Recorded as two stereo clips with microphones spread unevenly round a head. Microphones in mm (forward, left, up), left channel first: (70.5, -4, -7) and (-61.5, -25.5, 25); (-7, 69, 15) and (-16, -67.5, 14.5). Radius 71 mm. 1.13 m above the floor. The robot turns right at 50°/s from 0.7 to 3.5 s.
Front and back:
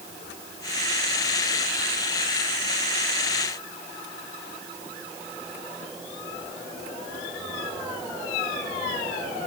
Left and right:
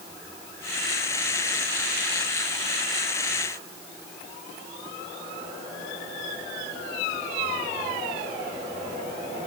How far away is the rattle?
I don't hear a rattle.